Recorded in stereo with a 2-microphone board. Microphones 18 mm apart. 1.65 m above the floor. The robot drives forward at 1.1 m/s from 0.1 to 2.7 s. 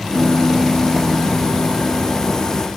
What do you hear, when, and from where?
0.1 s a piano: 30° right (ahead or behind), 1.9 m